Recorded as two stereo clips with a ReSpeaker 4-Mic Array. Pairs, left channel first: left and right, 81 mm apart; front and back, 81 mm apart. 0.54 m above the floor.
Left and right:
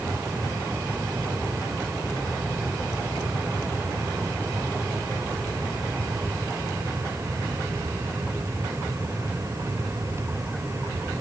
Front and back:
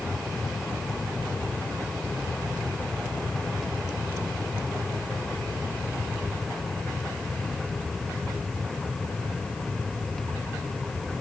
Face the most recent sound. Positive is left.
No sound to turn to.